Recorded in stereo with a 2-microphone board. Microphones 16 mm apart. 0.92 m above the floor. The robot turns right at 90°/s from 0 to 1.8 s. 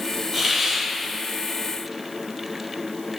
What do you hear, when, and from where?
0.3 s a hiss: 175° left, 1.8 m; by 0.8 s 140° right, 1.8 m